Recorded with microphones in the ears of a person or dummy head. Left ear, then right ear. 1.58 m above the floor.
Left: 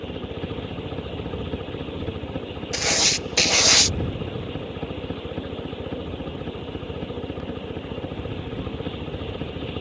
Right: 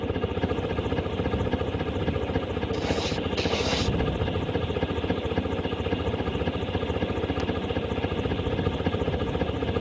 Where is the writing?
60° left (ahead or behind).